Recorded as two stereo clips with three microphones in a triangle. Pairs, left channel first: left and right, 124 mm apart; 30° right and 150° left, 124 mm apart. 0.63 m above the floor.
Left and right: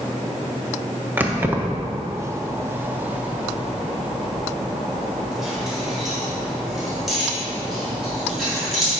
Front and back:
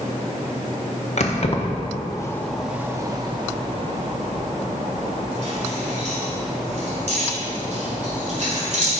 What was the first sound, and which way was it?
Keys jangling, 15° right.